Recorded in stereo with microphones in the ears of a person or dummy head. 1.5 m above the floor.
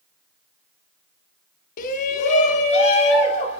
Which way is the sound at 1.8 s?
45° left (ahead or behind).